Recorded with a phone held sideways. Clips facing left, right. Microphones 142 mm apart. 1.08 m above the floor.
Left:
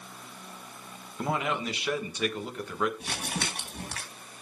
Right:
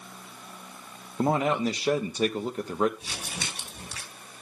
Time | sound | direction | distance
1.2 | a man speaking | 35° right (ahead or behind) | 1.1 m
3.0 | crumpling | 60° left (ahead or behind) | 3 m